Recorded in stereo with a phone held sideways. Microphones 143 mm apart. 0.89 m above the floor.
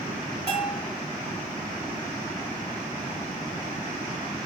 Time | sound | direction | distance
0.5 | a bell | 40° right (ahead or behind) | 1.5 m